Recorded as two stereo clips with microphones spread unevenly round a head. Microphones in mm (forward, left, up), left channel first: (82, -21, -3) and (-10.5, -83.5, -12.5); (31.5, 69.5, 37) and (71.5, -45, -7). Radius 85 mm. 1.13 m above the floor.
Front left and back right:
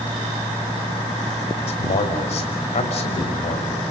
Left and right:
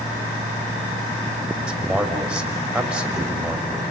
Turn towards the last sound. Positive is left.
turn(degrees=15)